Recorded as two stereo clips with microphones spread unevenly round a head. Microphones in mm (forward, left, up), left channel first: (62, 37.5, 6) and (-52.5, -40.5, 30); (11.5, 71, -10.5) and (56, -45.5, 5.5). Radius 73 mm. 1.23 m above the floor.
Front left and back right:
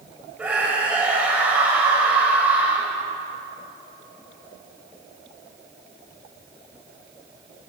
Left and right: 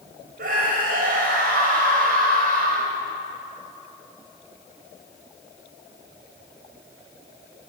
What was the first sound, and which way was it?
A scream, 65° right.